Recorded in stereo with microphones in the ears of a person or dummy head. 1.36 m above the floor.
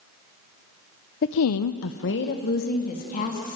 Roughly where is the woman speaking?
Left.